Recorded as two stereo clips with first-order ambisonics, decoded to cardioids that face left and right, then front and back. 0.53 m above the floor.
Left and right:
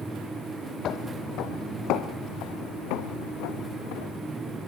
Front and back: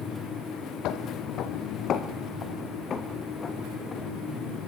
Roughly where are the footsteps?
Ahead left.